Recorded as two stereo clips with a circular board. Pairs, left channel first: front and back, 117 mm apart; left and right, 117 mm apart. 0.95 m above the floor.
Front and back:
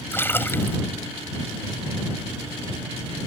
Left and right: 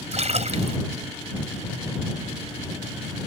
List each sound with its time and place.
0.1 s a splash: 70° right